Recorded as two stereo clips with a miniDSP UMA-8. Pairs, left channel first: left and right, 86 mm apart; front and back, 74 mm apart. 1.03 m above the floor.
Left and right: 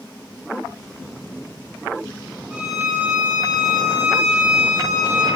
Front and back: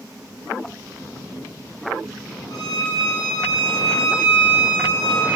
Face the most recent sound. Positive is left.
turn(degrees=-10)